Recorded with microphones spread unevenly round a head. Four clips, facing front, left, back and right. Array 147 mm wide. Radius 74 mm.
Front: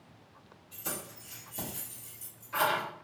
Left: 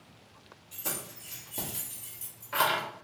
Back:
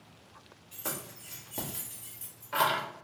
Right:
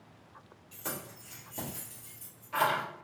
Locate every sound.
0.7 s keys jangling: 170° right, 1.7 m; by 2.8 s 140° left, 1.3 m